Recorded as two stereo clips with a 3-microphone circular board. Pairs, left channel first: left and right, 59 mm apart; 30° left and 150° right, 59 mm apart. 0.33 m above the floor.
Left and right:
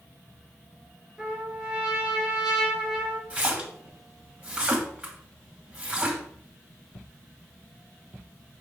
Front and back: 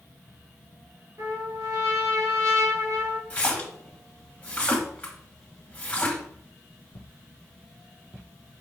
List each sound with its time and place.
1.2 s a trumpet: 165° right, 2.5 m
3.3 s a splash: 30° right, 2 m